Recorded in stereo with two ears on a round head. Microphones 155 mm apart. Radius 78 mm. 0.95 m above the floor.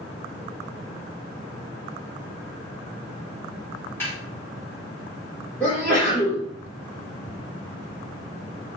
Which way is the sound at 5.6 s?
10° left (ahead or behind).